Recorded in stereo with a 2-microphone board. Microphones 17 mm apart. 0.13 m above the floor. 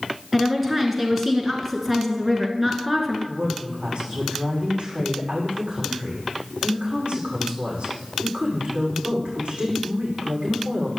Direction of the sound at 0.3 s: 10° right (ahead or behind).